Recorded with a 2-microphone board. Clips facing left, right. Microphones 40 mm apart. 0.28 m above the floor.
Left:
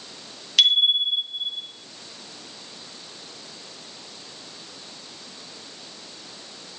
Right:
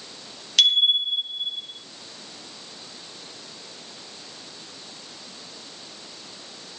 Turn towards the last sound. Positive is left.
turn(degrees=20)  # may be behind; listen again after turning